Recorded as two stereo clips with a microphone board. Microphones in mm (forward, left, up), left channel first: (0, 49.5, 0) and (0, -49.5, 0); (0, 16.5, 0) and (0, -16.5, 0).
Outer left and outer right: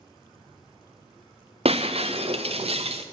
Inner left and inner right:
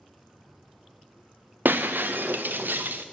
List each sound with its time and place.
1.6 s breaking glass: 80° right, 0.7 m